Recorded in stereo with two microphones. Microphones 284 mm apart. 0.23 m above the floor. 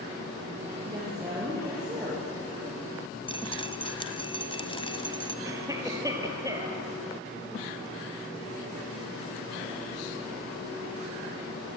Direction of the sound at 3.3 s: 20° left (ahead or behind).